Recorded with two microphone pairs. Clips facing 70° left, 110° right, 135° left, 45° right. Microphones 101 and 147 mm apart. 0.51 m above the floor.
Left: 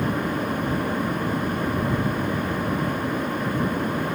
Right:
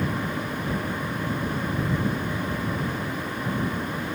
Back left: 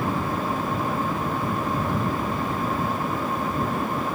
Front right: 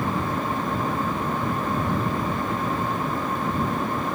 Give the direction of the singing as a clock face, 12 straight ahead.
No singing in this recording.